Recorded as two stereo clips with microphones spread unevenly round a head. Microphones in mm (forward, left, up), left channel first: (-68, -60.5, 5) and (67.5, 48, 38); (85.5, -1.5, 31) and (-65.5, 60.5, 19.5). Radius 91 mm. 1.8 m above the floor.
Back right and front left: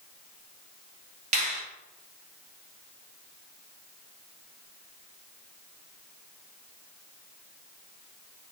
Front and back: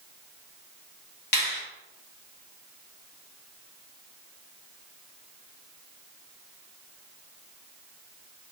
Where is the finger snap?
10° right, 1.5 m.